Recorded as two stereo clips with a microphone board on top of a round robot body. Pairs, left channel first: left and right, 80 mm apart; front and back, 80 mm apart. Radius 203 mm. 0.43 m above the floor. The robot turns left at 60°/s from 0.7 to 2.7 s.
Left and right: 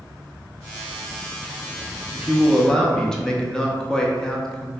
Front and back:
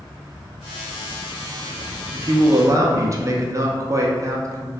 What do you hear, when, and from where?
2.1 s a man speaking: 160° right, 0.9 m; by 4.8 s 165° left, 0.9 m